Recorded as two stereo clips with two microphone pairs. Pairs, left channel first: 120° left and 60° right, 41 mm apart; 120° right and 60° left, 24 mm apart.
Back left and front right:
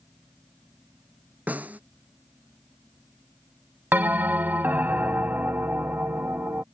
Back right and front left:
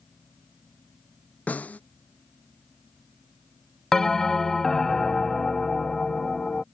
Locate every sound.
1.5 s a snare drum: 110° right
3.9 s a bell: 65° right